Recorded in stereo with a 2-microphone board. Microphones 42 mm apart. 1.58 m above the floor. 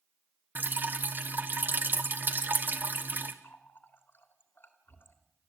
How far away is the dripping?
About 1.4 m.